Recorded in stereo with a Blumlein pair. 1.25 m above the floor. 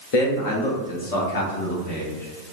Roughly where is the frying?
I don't hear frying.